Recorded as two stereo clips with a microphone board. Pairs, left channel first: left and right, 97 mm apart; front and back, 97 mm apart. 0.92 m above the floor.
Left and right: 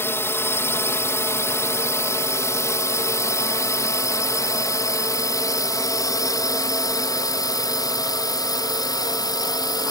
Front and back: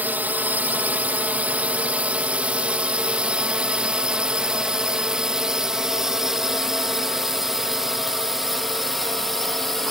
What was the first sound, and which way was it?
A drone, 125° left.